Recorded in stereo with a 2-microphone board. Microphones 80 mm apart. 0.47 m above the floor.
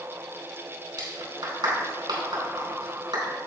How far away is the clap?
About 4 m.